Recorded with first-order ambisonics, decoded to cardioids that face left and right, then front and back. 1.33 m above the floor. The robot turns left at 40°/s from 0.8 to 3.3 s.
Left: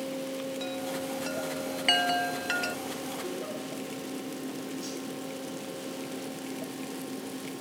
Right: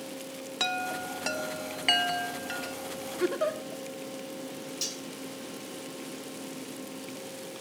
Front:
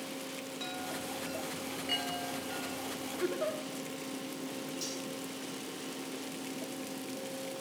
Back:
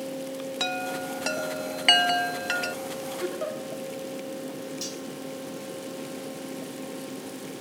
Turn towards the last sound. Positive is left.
turn(degrees=-110)